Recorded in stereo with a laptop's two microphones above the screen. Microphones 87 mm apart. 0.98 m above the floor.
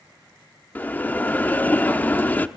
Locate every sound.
0.8 s a bell: 20° left (ahead or behind), 0.8 m